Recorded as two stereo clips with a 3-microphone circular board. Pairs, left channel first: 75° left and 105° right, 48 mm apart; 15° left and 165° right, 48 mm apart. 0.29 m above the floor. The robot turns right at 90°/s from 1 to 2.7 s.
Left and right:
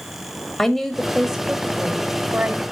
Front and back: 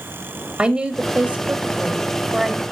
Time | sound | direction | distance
0.6 | a woman speaking | 150° left | 1.2 m